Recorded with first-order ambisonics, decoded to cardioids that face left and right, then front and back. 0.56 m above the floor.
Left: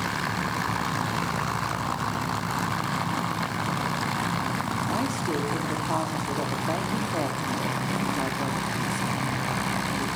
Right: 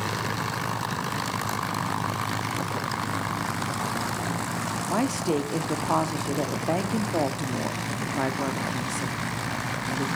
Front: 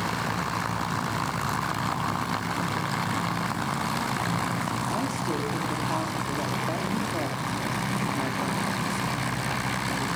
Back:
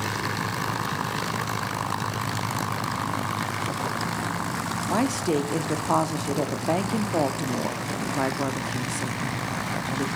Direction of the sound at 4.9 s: 150° right.